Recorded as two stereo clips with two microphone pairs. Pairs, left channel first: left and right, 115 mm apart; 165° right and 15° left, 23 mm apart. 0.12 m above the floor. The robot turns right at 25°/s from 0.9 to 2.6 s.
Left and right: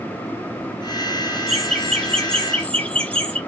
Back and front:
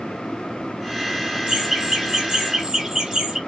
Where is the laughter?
Straight ahead, 1.3 m; by 3.4 s 30° left, 1.3 m.